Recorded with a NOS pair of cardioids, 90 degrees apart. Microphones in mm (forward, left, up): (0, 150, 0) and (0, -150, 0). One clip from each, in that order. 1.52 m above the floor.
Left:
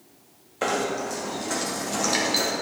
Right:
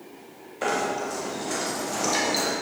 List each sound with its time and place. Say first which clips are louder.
0.6 s knocking: even; 25° left, 2.5 m